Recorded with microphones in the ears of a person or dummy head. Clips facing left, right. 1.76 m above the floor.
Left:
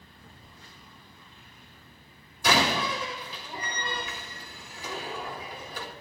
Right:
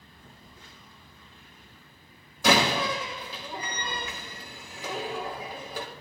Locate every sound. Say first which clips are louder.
0.2 s a phone buzzing: right 1 dB; 85° right, 5 m
2.4 s a door slam: right 2 dB; 70° right (ahead or behind), 2.0 m